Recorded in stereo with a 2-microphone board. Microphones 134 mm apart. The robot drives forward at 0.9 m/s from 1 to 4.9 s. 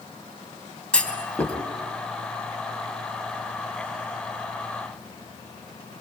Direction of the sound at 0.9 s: 10° left (ahead or behind).